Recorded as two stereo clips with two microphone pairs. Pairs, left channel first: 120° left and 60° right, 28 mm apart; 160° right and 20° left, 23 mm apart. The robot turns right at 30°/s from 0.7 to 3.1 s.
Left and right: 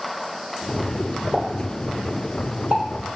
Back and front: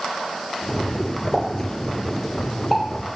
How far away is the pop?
About 1.0 m.